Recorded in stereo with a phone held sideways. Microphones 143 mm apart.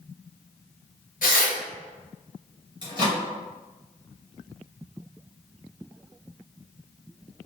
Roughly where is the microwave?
Right.